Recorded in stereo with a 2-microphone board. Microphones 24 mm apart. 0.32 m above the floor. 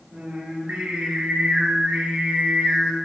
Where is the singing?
75° right (ahead or behind), 2.5 m.